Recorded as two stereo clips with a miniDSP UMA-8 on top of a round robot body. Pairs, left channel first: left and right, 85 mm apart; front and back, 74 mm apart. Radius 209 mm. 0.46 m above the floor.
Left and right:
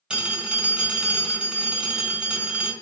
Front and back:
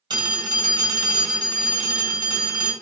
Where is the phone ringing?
165° right, 1.8 m.